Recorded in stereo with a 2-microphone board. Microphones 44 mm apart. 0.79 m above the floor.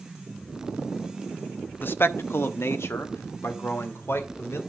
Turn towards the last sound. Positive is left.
turn(degrees=75)  # may be behind; listen again after turning